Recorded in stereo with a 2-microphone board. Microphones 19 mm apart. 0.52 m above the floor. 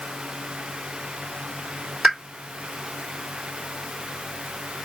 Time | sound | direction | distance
2.0 | a pop | 5° right (ahead or behind) | 2.0 m